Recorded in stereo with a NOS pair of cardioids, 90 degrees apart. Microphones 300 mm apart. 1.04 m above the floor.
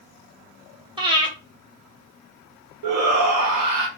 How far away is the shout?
About 1.1 m.